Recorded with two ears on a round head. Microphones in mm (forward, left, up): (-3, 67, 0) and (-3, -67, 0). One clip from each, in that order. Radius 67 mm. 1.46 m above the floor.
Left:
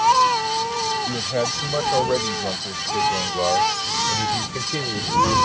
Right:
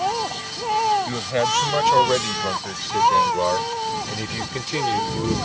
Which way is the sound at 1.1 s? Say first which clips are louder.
Right 1 dB; 55° right (ahead or behind).